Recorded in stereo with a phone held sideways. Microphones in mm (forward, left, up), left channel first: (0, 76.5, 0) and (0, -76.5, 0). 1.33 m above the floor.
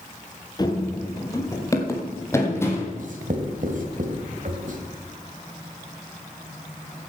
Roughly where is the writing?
Right.